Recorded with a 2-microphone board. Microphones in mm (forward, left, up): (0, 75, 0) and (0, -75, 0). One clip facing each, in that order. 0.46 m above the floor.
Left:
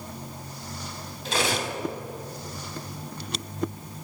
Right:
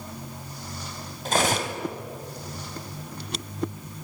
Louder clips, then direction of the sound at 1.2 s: Right 3 dB; 50° right (ahead or behind).